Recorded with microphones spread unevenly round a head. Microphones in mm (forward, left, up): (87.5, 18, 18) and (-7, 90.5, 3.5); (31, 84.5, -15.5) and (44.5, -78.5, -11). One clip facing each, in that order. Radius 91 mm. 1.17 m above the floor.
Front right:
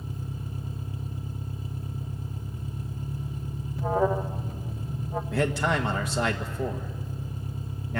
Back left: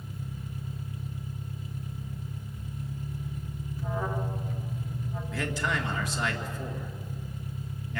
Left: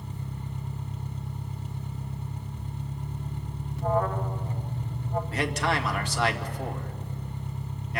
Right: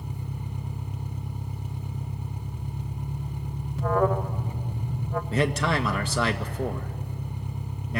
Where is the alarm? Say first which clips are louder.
Front right 9 dB, right 3 dB; 80° right, 0.8 m.